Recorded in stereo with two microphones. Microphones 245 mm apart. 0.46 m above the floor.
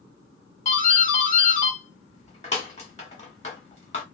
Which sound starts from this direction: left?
A doorbell, at 0.7 s.